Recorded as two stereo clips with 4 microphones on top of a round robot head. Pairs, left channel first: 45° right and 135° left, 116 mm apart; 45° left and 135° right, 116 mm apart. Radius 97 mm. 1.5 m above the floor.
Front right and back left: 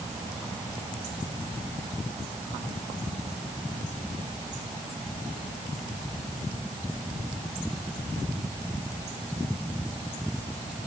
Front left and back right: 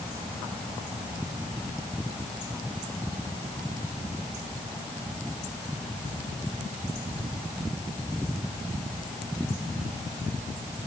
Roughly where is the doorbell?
No doorbell in this recording.